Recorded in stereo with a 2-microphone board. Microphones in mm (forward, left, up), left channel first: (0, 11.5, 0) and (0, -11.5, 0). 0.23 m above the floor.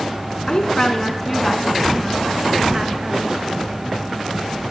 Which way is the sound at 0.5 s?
35° left (ahead or behind).